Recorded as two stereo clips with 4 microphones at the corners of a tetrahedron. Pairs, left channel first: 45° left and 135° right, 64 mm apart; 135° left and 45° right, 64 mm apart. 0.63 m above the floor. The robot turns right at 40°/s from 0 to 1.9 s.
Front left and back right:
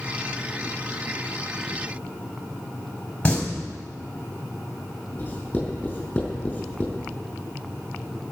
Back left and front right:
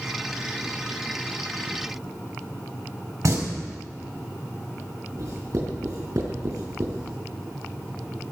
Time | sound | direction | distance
3.2 | singing | 25° right | 4 m
5.2 | writing | 20° right | 5.5 m